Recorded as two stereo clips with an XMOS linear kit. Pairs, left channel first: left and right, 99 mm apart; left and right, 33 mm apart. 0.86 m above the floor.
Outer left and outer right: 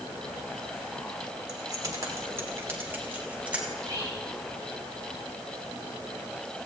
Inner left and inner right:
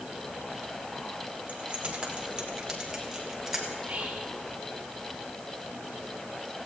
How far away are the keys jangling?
About 2 m.